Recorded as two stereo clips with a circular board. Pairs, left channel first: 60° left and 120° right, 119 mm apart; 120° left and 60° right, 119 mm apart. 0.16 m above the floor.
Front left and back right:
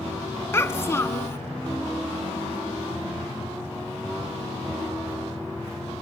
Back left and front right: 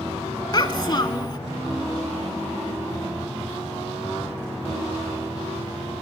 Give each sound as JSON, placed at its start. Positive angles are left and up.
{"t": 0.5, "sound": "a child speaking", "azimuth_deg": 115, "distance_m": 0.7}